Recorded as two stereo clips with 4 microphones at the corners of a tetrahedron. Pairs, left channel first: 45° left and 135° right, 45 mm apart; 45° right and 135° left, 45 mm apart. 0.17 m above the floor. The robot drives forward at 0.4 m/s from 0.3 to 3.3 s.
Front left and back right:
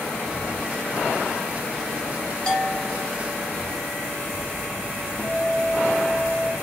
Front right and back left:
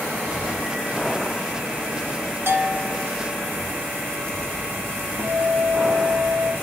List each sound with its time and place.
2.5 s a bell: 115° left, 4 m; by 3.1 s 120° left, 4.5 m
5.2 s a guitar: 105° left, 6.5 m